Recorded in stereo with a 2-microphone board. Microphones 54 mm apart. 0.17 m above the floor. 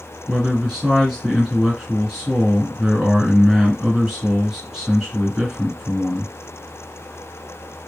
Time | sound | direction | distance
0.3 | a man speaking | centre (ahead or behind) | 2 m